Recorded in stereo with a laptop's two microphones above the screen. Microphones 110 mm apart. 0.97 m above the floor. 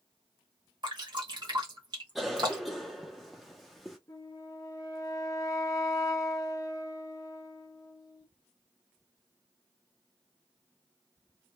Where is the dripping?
45° right (ahead or behind), 1.1 m.